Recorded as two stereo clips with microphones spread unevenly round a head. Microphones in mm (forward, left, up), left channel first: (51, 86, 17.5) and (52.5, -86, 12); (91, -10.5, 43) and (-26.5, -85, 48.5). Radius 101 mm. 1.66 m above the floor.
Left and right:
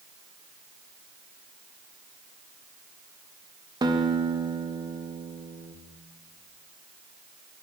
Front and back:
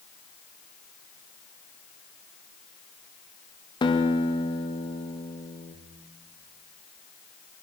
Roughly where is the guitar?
Ahead right.